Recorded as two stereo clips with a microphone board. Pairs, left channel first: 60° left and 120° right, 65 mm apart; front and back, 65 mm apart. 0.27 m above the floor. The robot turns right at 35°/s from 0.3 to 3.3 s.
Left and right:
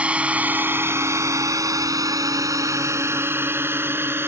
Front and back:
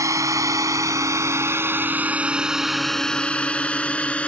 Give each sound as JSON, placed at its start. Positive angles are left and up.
{"t": 0.0, "sound": "a drone", "azimuth_deg": 175}